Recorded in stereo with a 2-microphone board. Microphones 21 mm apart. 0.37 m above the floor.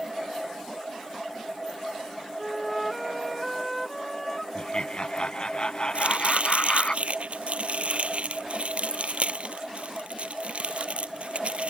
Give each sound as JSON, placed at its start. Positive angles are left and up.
{"t": 2.4, "sound": "a flute", "side_deg": 5}
{"t": 4.5, "sound": "laughter", "side_deg": 45}
{"t": 6.0, "sound": "chopping", "side_deg": -70}